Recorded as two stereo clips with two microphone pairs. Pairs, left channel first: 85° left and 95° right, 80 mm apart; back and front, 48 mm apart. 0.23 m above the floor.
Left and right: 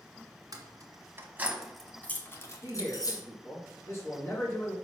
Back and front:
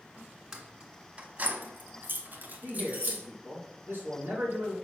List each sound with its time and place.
0.5 s keys jangling: 70° right, 1.5 m; by 3.2 s 55° left, 2.0 m
2.6 s a man speaking: 30° left, 3 m